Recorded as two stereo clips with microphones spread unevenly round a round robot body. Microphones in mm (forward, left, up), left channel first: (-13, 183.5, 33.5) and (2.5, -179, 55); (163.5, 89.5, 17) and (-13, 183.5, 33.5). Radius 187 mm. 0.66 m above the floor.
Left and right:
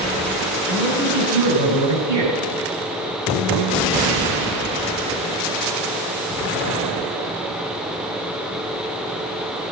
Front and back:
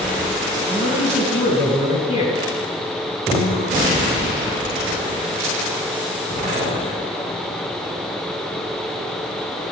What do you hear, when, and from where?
0.7 s a man speaking: 105° right, 5.5 m; by 2.4 s 100° right, 6.5 m